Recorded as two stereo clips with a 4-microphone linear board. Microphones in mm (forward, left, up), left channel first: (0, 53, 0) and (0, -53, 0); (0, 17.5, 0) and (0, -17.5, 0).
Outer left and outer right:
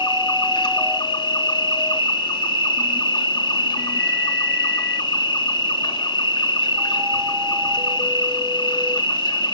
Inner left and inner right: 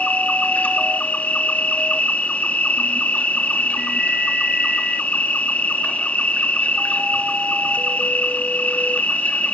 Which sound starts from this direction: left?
An insect, at 0.0 s.